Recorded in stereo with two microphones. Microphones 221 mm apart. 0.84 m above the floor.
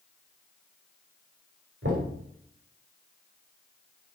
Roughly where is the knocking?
Right.